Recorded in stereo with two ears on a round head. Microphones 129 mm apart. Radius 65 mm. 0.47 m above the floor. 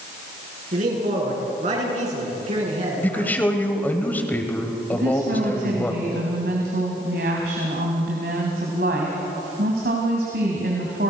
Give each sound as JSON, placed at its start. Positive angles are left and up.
{"t": 0.7, "sound": "a man speaking", "side_deg": -60, "distance_m": 7.5}
{"t": 3.0, "sound": "a man speaking", "side_deg": 15, "distance_m": 2.5}
{"t": 4.9, "sound": "a woman speaking", "side_deg": -70, "distance_m": 3.0}